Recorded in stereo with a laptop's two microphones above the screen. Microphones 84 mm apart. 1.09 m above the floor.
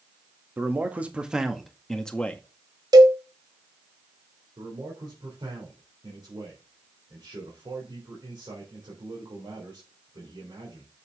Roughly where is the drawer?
No drawer in this recording.